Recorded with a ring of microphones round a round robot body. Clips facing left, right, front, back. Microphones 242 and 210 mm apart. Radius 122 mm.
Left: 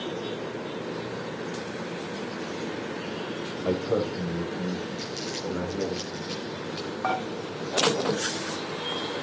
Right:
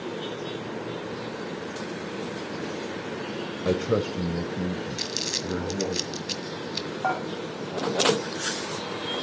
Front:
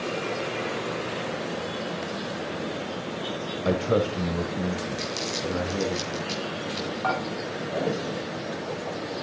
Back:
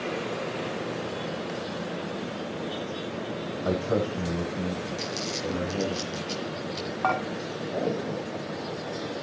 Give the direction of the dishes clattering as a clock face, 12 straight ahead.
6 o'clock.